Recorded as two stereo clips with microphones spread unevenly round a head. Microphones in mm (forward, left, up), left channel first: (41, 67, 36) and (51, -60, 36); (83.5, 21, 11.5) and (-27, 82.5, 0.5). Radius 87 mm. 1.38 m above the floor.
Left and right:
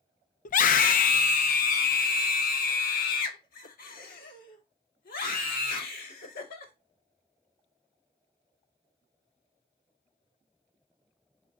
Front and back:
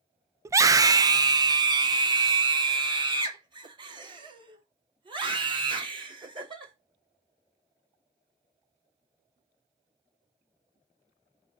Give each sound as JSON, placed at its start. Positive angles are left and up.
{"t": 0.5, "sound": "a scream", "azimuth_deg": 80, "distance_m": 0.7}